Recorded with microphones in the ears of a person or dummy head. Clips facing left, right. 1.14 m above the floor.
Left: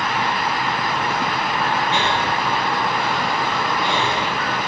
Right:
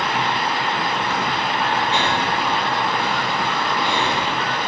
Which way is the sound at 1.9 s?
15° left (ahead or behind).